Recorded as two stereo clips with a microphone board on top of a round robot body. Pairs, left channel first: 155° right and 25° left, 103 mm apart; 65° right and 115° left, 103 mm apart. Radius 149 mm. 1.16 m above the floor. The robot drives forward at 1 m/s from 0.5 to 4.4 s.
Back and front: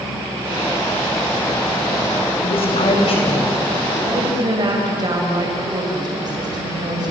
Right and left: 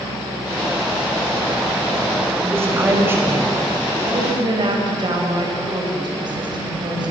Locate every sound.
2.4 s a woman speaking: straight behind, 5.5 m
4.0 s a woman speaking: 65° left, 6 m; by 7.1 s 70° left, 5.5 m